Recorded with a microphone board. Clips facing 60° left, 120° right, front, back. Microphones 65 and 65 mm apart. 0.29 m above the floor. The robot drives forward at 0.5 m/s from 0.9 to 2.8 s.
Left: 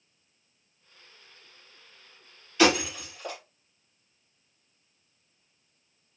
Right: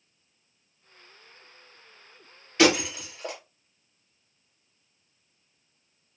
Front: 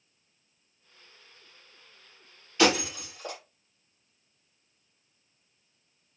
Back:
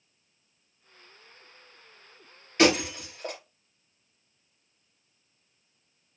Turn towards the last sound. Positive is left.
turn(degrees=-155)